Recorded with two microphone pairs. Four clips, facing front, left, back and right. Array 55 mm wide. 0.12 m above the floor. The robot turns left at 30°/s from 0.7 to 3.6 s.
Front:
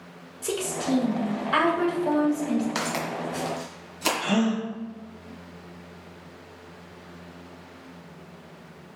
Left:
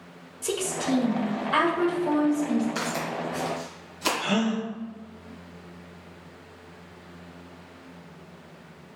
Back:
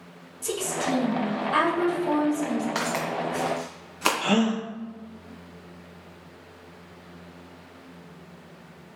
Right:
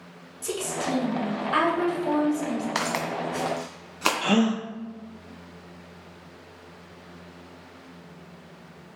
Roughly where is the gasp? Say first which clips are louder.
Right 4 dB, even; behind right.